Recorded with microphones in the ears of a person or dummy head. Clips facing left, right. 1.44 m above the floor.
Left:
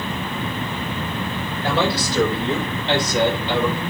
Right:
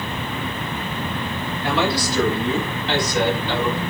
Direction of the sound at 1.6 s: 30° left (ahead or behind).